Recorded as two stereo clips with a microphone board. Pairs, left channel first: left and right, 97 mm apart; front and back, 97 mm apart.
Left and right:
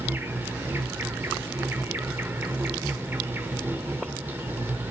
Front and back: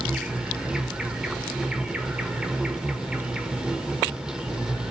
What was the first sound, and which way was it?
An insect, 110° right.